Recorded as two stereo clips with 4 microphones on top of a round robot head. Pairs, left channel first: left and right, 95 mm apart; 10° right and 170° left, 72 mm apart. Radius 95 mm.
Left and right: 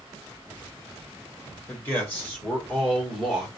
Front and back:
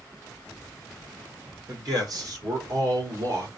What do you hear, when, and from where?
1.7 s a man speaking: 155° left, 3 m; by 3.5 s straight behind, 1.8 m